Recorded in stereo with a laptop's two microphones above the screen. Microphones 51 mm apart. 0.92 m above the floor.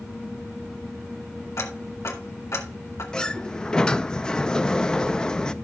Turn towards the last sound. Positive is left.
turn(degrees=15)  # may be behind; listen again after turning